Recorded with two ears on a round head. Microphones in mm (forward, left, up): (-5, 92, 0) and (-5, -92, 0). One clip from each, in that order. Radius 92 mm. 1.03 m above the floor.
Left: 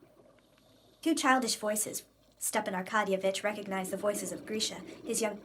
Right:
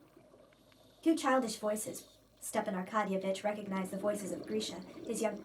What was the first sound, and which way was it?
A woman speaking, 50° left (ahead or behind).